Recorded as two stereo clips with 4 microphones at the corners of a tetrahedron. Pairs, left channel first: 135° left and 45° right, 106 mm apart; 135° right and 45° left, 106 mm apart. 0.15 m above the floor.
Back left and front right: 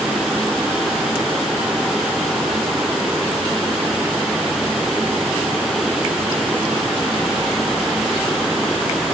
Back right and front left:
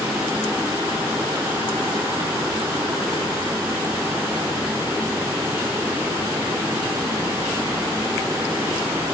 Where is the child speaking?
No child speaking in this recording.